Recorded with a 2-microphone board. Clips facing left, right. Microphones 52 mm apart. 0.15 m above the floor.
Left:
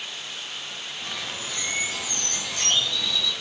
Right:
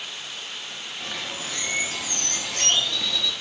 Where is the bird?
60° right (ahead or behind), 0.8 m.